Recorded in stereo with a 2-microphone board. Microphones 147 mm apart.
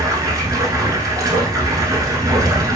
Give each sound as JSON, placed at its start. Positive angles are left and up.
{"t": 0.0, "sound": "running water", "side_deg": -25, "distance_m": 0.7}